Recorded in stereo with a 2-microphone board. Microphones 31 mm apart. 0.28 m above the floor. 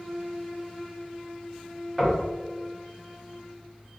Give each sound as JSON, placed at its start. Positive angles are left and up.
{"t": 2.0, "sound": "knocking", "side_deg": -10, "distance_m": 1.7}